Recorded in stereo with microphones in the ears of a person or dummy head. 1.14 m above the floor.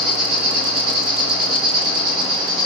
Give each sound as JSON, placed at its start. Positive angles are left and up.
{"t": 0.0, "sound": "an insect", "side_deg": -30, "distance_m": 1.5}